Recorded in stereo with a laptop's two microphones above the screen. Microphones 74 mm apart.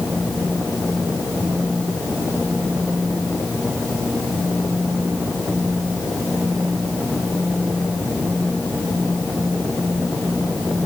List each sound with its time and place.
Only background noise.